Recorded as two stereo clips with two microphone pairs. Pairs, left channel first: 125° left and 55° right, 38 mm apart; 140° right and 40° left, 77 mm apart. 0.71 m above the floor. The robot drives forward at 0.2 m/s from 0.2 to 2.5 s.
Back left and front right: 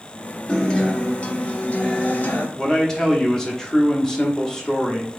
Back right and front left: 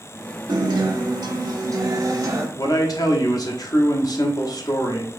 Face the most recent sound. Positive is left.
turn(degrees=-160)